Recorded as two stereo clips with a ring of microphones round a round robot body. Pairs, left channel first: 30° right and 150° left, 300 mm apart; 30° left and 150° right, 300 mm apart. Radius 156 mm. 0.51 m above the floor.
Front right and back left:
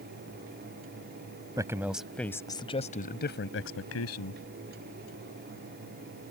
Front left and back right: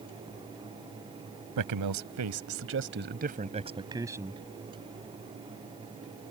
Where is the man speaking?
130° right; by 4.4 s 65° right.